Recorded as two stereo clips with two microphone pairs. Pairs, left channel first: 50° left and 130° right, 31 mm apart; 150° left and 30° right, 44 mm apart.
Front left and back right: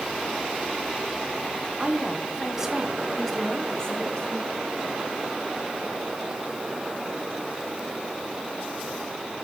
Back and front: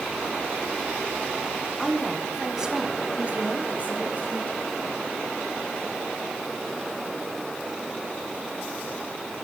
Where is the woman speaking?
125° right, 1.2 m; by 4.6 s 5° left, 1.7 m.